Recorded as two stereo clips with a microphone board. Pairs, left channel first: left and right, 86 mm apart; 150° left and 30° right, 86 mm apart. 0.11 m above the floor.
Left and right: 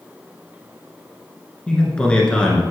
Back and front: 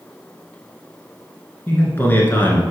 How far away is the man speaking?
About 1.2 m.